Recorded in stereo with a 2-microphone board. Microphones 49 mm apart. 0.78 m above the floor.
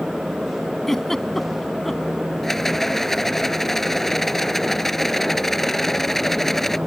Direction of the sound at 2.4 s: 10° left (ahead or behind).